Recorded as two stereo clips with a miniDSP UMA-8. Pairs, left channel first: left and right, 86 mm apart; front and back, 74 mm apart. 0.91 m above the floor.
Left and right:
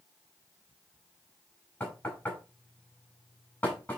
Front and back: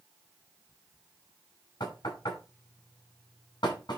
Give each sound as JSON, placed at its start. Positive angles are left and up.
{"t": 1.8, "sound": "knocking", "azimuth_deg": 20, "distance_m": 5.0}